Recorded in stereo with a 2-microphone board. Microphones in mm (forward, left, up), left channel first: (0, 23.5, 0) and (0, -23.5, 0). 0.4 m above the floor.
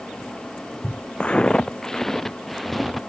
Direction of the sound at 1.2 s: 25° left (ahead or behind).